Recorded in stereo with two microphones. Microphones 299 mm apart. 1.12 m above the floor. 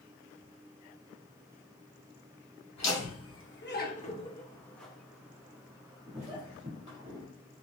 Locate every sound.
2.8 s laughter: 60° left (ahead or behind), 1.2 m; by 7.2 s 30° right (ahead or behind), 2.5 m